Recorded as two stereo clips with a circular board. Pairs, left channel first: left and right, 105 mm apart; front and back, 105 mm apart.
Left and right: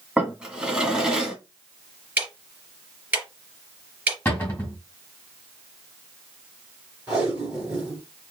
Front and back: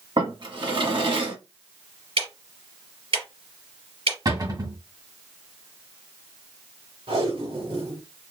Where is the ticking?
165° right, 3 m.